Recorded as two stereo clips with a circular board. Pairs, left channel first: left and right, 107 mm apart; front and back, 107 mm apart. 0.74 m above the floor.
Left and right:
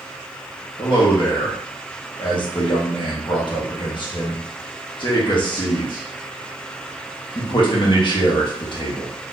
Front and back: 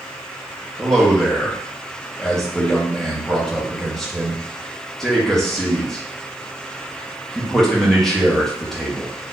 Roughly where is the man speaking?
Left.